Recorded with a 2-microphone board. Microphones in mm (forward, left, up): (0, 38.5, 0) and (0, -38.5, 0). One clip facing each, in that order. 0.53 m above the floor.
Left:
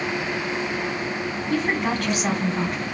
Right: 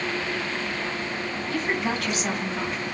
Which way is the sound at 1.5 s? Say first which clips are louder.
Left 4 dB; 40° left (ahead or behind).